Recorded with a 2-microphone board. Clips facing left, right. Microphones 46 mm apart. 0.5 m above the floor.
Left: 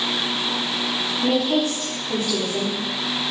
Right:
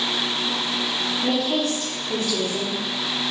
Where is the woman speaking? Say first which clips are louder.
Left 3 dB; centre (ahead or behind), 0.7 m.